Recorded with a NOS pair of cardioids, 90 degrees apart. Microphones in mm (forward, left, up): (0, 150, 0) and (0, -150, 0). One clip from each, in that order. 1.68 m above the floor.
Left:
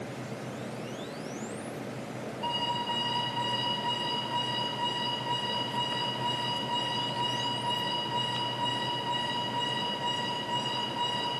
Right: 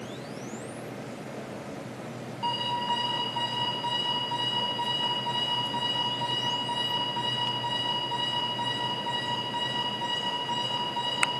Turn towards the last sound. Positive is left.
turn(degrees=-30)